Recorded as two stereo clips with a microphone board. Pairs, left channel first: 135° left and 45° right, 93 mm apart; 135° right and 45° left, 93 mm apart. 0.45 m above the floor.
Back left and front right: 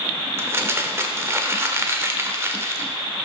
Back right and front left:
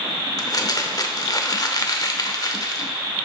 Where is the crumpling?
100° right, 0.6 m.